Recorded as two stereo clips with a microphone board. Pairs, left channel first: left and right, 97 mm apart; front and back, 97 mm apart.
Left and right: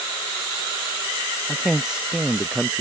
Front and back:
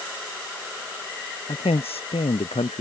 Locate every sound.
1.5 s a man speaking: 5° right; by 2.8 s 10° right